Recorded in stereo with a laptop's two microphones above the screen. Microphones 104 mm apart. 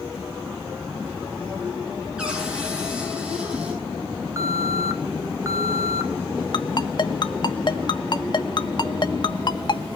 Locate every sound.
2.2 s a cupboard door: 10° right (ahead or behind), 8.5 m
4.4 s an alarm: 30° right (ahead or behind), 1.7 m
6.5 s a ringtone: 50° left (ahead or behind), 1.3 m